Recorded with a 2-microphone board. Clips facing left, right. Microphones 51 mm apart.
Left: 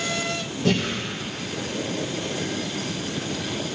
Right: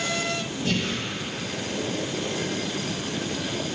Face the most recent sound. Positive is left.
turn(degrees=85)